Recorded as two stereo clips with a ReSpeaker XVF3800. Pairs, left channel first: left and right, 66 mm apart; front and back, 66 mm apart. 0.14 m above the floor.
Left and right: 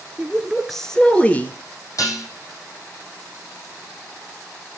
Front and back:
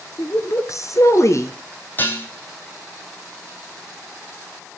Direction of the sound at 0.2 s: 20° right.